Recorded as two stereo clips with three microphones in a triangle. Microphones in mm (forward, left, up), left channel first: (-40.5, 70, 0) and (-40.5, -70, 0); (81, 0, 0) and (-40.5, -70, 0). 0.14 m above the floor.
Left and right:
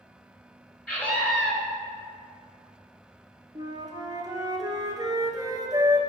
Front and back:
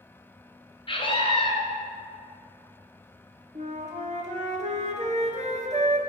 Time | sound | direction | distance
0.9 | a scream | 15° left | 2 m
3.5 | a flute | 145° right | 1.3 m